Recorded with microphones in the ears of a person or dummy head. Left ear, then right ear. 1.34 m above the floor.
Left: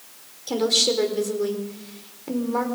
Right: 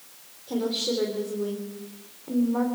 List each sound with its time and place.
0.5 s a woman speaking: 90° left, 4 m